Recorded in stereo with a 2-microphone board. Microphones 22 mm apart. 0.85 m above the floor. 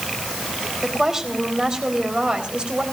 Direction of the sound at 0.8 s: 25° right (ahead or behind).